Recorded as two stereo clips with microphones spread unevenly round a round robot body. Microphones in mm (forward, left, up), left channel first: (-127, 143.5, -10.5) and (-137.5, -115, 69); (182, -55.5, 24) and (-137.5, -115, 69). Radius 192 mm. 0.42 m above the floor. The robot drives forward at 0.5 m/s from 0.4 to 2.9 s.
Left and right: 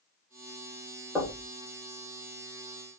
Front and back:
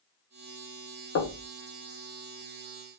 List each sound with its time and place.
1.1 s knocking: 15° left, 0.7 m; by 1.4 s 20° left, 0.6 m